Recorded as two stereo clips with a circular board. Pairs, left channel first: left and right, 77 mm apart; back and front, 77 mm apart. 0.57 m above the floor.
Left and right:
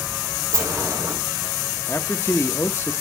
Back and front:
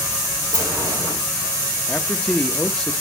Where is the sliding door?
40° right, 7 m.